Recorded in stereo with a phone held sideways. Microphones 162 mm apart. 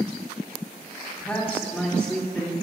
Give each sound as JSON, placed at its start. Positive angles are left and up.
{"t": 1.2, "sound": "a man speaking", "side_deg": 5, "distance_m": 3.0}